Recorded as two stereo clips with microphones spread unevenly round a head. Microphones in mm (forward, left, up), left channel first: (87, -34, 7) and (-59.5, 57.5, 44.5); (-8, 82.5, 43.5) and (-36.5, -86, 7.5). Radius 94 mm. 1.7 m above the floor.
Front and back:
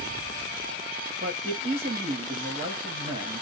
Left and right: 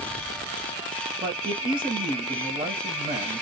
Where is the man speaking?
165° right, 1.0 m.